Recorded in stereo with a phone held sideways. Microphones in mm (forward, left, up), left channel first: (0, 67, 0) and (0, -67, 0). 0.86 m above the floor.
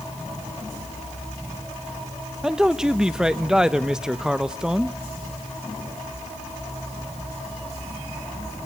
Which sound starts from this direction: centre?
A man speaking, at 2.4 s.